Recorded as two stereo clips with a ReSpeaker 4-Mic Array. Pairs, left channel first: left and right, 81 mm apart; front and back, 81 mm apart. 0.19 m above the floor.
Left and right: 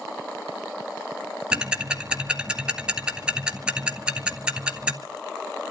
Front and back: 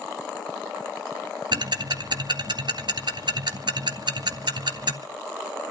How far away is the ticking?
About 1.8 m.